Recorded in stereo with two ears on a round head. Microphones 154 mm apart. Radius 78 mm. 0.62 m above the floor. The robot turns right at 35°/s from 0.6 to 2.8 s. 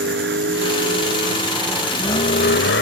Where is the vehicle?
65° right (ahead or behind); by 2.8 s 75° left (ahead or behind).